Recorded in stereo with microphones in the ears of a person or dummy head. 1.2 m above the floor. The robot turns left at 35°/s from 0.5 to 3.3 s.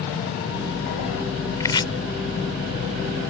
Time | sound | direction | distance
1.6 | chopping | 15° left (ahead or behind) | ?